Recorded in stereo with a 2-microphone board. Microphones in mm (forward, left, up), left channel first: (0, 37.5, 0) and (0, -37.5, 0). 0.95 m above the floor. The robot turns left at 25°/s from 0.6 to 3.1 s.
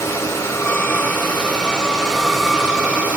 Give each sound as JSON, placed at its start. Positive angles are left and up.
{"t": 0.0, "sound": "running water", "azimuth_deg": 40, "distance_m": 2.0}